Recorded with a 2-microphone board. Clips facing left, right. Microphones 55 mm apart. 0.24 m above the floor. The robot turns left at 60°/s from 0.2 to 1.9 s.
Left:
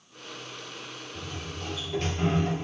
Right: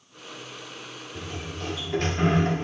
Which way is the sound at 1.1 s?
70° right.